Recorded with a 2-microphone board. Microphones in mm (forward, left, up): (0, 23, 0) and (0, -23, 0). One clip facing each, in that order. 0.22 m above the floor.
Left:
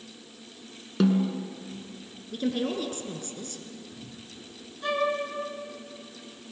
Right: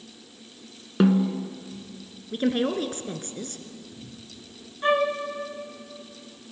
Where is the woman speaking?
45° right (ahead or behind), 2.5 m.